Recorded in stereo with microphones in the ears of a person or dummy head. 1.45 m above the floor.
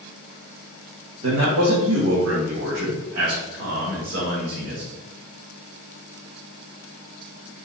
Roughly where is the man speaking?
Right.